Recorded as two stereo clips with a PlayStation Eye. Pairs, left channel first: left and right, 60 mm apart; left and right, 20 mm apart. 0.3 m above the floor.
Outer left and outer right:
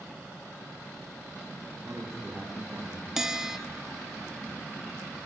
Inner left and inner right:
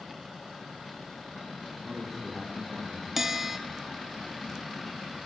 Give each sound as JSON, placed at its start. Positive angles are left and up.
{"t": 1.8, "sound": "a man speaking", "side_deg": -10, "distance_m": 9.0}
{"t": 3.2, "sound": "a bell", "side_deg": -10, "distance_m": 0.9}